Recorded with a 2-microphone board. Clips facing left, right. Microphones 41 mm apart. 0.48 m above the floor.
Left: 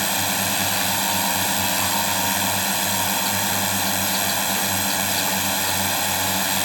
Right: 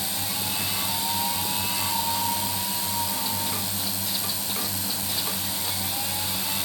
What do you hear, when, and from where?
0.0 s a drone: 65° left (ahead or behind)